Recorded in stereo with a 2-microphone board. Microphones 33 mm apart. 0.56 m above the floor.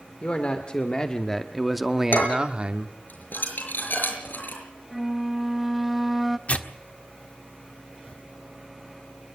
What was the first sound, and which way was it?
A man speaking, 40° left (ahead or behind).